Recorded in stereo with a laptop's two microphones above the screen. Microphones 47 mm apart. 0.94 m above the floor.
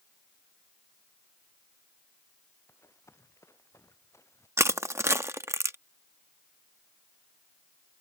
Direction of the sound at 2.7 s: 85° left.